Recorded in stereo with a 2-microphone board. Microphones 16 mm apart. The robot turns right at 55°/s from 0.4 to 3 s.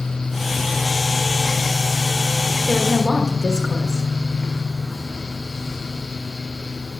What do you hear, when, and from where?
2.7 s a woman speaking: 60° right (ahead or behind), 1.4 m; by 4.0 s 45° right (ahead or behind), 1.4 m